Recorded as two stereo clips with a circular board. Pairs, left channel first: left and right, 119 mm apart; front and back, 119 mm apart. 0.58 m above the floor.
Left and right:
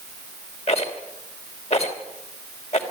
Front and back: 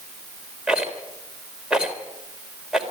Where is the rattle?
95° left, 3 m.